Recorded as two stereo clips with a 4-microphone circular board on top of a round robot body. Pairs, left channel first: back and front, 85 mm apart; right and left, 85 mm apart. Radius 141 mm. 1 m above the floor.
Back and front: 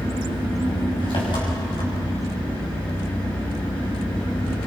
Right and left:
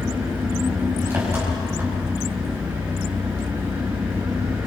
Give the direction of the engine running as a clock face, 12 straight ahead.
7 o'clock.